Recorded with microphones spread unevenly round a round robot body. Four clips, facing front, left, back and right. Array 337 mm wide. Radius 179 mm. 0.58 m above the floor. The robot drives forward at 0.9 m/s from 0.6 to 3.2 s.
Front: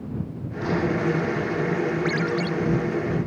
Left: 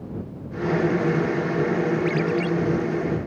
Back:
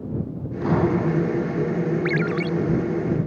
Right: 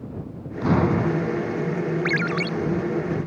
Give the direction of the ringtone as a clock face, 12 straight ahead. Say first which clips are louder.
Left 2 dB, back 1 dB; 3 o'clock.